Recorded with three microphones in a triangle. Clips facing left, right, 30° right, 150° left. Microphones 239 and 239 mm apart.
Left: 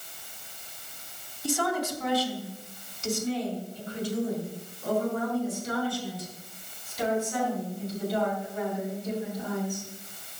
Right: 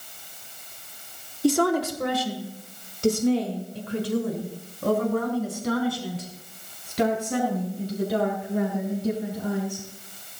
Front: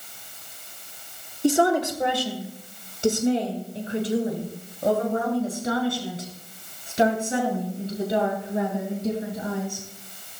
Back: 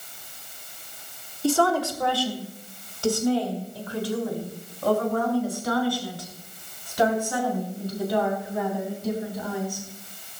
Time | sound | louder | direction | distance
1.4 | a woman speaking | right 8 dB, front 2 dB | 100° right | 2.5 m